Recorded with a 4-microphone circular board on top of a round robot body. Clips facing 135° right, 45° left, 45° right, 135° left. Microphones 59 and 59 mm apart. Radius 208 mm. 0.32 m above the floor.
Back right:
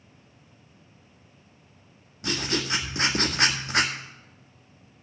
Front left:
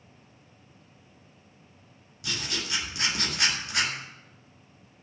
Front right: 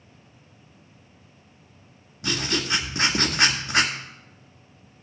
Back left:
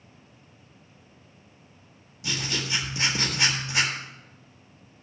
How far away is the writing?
About 2 m.